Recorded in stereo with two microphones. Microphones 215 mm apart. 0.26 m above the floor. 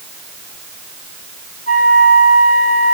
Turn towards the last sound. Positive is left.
turn(degrees=40)  # may be behind; listen again after turning